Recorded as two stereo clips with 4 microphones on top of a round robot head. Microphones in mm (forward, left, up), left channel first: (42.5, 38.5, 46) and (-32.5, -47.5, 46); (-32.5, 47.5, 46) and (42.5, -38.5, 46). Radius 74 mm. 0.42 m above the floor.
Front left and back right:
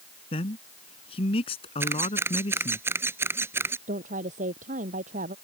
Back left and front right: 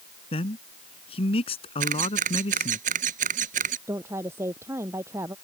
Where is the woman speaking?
120° right.